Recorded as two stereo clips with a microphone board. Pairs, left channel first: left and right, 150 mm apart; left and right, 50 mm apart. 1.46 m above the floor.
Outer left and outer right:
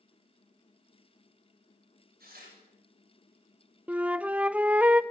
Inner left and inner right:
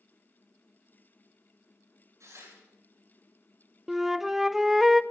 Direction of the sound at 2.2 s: 85° right.